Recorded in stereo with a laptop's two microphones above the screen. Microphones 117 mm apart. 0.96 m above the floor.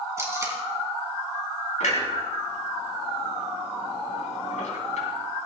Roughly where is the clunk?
Left.